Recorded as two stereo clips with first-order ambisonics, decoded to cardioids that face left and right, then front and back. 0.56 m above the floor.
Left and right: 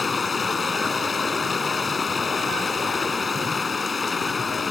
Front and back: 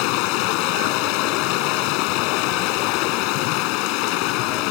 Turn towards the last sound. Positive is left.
turn(degrees=15)